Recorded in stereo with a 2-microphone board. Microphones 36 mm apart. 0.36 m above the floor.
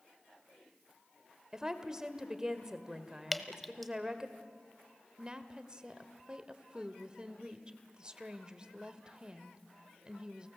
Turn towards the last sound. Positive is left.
turn(degrees=-25)  # may be behind; listen again after turning